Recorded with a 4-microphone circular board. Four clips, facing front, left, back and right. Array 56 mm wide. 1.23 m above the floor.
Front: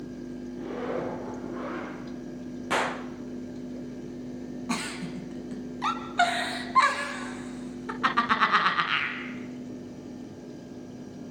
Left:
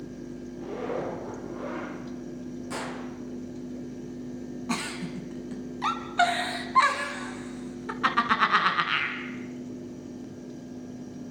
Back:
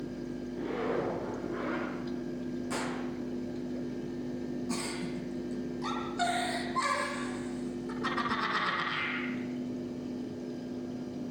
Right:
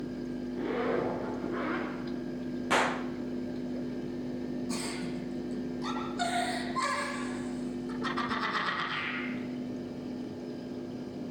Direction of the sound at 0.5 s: 105° right.